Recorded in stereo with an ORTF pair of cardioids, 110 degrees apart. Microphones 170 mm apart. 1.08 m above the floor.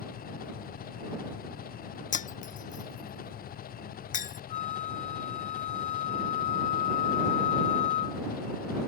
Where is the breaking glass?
50° left.